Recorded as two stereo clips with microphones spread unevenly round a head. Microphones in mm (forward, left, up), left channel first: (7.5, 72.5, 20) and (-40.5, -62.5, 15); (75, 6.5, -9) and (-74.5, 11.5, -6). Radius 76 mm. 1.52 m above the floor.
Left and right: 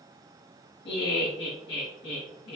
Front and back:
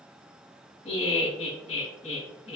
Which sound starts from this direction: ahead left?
Laughter, at 0.8 s.